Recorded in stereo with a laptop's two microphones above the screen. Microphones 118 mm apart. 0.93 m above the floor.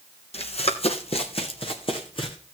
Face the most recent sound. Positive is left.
turn(degrees=50)  # may be behind; listen again after turning